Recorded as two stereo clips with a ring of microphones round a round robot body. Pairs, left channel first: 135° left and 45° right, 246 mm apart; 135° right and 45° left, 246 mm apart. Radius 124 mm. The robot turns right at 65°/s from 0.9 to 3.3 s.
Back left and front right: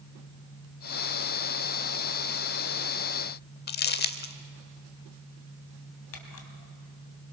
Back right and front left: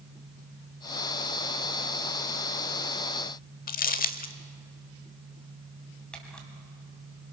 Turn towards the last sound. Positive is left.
turn(degrees=140)